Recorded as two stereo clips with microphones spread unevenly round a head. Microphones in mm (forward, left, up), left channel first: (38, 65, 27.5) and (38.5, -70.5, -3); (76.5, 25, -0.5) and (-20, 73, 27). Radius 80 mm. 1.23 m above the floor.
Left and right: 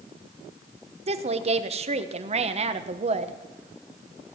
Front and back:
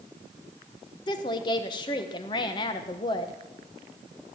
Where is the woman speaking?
70° right, 1.1 m.